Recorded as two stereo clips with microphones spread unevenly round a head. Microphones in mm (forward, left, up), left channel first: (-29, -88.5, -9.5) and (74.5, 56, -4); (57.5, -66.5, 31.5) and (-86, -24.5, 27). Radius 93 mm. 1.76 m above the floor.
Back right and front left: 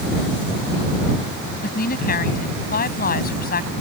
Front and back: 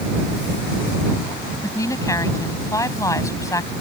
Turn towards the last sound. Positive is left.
turn(degrees=-85)